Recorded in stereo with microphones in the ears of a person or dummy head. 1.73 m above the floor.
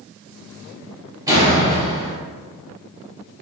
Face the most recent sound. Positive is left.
turn(degrees=-20)  # may be behind; listen again after turning